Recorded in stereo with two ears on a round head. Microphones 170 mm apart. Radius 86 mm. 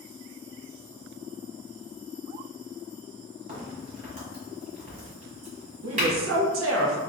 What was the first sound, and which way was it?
A crack, 35° right (ahead or behind).